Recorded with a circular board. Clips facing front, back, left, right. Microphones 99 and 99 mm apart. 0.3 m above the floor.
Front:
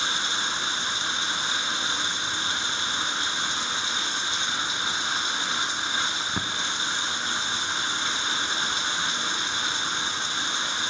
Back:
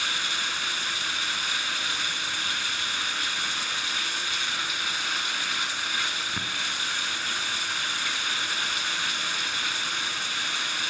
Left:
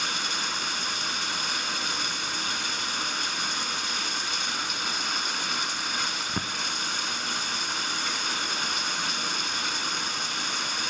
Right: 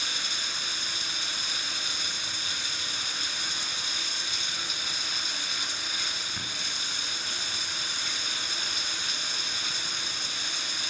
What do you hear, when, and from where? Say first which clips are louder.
0.0 s running water: front 3 dB, left 6 dB; 65° left, 0.7 m